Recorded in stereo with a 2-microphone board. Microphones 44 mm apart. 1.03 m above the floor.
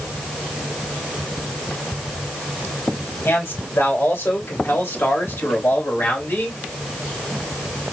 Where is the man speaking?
70° left (ahead or behind), 2.5 m; by 6.6 s 45° left (ahead or behind), 2 m.